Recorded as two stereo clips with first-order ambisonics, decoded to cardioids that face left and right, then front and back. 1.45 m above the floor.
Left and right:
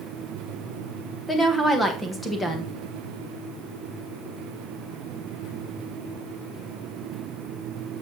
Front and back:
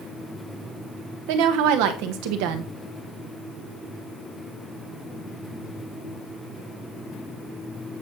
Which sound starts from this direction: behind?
A woman speaking, at 1.3 s.